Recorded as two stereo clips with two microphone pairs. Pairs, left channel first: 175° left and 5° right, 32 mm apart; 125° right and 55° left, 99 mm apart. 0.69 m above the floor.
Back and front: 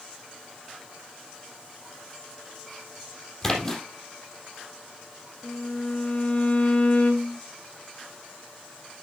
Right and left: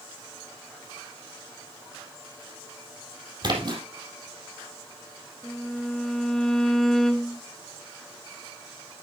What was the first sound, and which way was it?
A splash, 100° left.